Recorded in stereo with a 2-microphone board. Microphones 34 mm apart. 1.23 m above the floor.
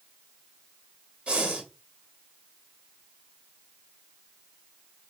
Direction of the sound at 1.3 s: 35° right (ahead or behind).